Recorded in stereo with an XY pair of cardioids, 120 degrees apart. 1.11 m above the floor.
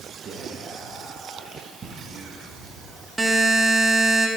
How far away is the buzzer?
About 1.0 m.